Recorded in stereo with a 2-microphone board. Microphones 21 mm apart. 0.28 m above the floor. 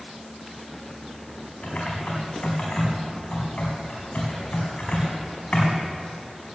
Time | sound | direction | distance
1.6 | typing on a keyboard | 80° left | 4 m